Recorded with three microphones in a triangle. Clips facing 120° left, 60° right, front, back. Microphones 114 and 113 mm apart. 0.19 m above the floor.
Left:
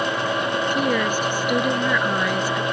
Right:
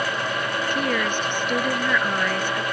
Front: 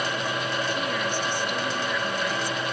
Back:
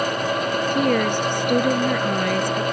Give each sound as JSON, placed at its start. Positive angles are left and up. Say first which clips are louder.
{"t": 0.7, "sound": "a woman speaking", "louder": "left 2 dB, back 8 dB", "azimuth_deg": -160}